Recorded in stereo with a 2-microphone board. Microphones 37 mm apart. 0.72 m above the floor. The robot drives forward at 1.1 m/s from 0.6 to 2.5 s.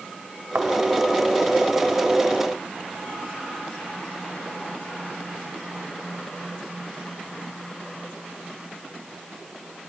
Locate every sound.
0.6 s a thud: 65° right (ahead or behind), 1.6 m; by 0.7 s 60° right (ahead or behind), 1.6 m